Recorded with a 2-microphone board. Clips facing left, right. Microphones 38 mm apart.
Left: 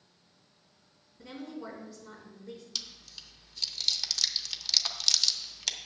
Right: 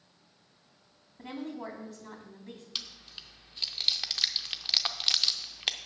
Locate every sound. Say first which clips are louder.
1.2 s a woman speaking: right 3 dB; 50° right (ahead or behind), 3 m
2.8 s chewing: right 2 dB; 30° right (ahead or behind), 0.6 m